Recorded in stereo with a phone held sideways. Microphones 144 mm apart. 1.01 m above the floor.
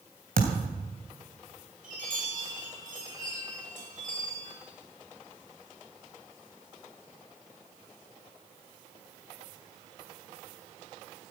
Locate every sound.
0.4 s a thud: 80° right, 3 m
1.8 s a chime: 65° right (ahead or behind), 7.5 m